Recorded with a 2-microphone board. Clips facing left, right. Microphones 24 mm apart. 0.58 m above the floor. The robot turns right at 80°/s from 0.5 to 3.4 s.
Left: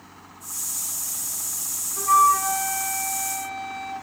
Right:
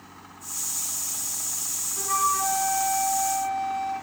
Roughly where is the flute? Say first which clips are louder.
Left 8 dB; ahead left.